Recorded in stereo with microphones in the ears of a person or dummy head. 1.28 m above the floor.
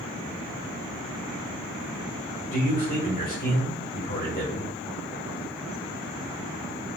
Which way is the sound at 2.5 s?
35° left (ahead or behind).